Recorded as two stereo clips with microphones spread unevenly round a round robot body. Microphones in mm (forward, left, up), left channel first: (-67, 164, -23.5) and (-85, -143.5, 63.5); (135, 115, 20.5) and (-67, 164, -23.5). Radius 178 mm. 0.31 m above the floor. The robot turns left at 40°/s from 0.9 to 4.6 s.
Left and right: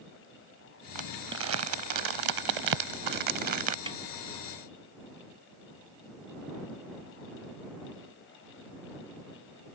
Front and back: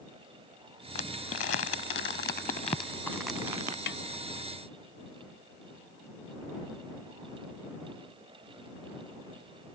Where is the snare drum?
10° right; by 4.0 s 15° right.